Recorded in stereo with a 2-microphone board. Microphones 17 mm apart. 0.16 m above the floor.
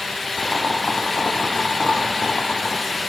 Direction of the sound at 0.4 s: 80° left.